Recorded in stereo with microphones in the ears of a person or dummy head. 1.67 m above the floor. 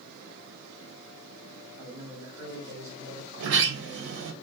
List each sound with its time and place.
1.8 s a man speaking: 15° right (ahead or behind), 1.1 m; by 4.4 s 35° right (ahead or behind), 2.5 m
3.4 s a sliding door: 65° right (ahead or behind), 0.8 m